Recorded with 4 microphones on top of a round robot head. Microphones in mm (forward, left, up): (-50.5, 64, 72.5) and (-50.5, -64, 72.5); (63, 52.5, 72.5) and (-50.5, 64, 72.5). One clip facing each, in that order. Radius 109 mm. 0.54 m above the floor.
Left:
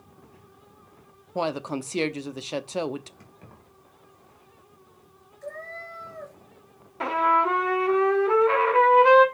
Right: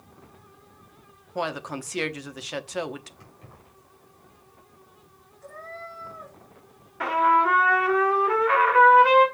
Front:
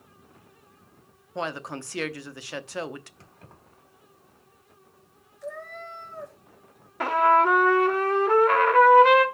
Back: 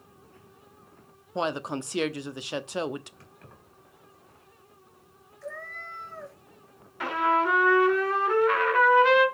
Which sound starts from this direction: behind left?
A woman speaking, at 1.4 s.